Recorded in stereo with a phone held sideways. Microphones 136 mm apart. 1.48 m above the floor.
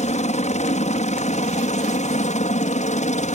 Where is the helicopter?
55° left (ahead or behind); by 3.4 s 60° left (ahead or behind).